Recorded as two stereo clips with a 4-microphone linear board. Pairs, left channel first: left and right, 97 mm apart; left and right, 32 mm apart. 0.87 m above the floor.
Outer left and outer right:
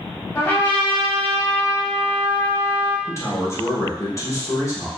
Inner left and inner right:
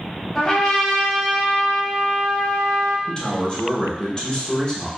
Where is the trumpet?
20° left (ahead or behind), 1.2 m.